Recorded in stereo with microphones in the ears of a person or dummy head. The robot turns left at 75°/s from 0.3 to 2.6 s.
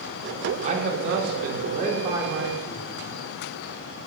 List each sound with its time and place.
0.6 s a man speaking: 45° right, 2.5 m; by 3.2 s 170° left, 2.5 m